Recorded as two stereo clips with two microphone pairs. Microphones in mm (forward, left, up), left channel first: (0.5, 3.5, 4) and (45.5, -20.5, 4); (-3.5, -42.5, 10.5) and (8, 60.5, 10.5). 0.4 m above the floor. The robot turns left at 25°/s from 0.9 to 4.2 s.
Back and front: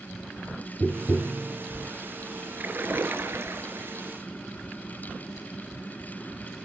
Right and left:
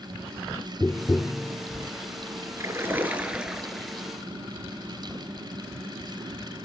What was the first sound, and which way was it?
Tapping, 105° right.